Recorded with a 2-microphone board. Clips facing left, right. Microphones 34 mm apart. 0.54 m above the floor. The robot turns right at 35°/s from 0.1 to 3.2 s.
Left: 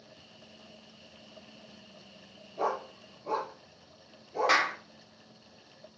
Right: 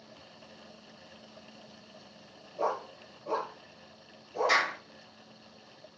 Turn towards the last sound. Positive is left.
turn(degrees=45)  # may be behind; listen again after turning